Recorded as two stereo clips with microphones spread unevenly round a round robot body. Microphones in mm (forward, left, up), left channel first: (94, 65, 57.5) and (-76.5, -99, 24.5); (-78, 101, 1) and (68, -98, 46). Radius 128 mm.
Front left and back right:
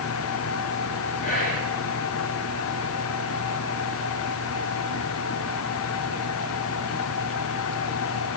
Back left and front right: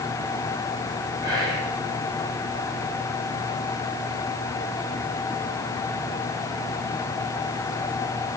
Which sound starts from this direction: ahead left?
Whispering, at 1.2 s.